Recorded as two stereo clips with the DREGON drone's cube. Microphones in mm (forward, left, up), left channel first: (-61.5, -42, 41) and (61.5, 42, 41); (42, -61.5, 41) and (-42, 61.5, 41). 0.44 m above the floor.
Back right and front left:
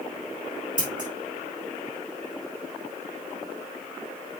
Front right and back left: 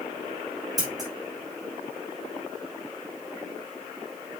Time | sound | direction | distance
0.8 | scissors | 60° left | 7.5 m